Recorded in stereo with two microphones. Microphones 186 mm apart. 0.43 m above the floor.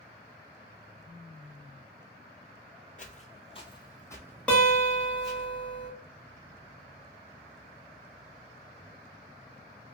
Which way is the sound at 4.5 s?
5° left (ahead or behind).